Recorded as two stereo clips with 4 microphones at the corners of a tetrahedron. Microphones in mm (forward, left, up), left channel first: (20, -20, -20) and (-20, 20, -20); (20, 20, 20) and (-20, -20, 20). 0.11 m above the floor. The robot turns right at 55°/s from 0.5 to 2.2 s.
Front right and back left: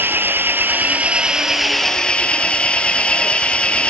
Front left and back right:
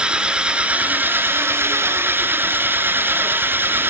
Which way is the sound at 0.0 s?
160° left.